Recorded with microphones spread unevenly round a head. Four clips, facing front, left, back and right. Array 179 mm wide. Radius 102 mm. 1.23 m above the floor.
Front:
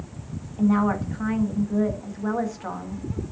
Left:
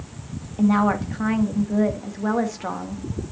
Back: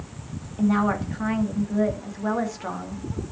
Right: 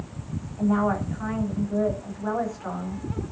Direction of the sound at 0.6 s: 100° left.